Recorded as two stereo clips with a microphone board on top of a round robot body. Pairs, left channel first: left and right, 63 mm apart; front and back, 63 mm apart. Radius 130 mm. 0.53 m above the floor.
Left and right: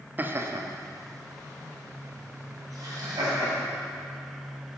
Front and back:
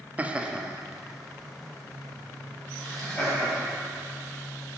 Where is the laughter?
130° right, 0.9 m; by 3.7 s 80° right, 4 m.